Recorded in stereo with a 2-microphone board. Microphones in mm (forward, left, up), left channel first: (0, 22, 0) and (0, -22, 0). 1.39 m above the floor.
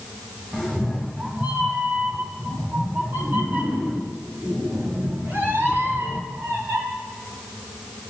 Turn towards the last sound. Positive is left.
turn(degrees=-70)  # may be behind; listen again after turning